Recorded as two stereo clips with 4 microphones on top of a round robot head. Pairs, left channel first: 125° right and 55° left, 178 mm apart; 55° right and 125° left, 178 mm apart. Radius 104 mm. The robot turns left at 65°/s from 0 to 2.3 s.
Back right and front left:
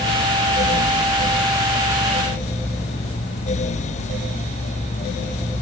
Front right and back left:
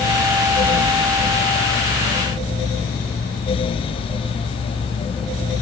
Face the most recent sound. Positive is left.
No sound to turn to.